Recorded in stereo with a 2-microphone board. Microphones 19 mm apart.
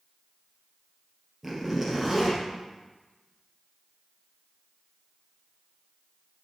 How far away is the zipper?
About 2.5 m.